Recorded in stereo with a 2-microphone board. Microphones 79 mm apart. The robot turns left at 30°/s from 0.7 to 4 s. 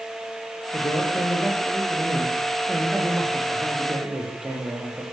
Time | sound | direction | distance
0.7 | a man speaking | 60° left | 8 m